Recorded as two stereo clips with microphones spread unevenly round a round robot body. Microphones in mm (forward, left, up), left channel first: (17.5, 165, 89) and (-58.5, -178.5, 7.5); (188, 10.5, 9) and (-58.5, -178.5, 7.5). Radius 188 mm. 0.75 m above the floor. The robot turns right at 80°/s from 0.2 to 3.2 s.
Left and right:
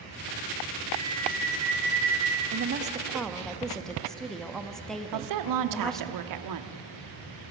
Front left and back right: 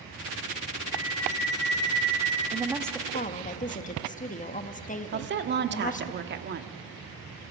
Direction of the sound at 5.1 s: 90° right.